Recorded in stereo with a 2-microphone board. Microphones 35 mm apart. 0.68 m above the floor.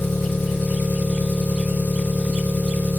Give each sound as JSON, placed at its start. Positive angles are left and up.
{"t": 0.0, "sound": "an engine running", "side_deg": 70, "distance_m": 2.5}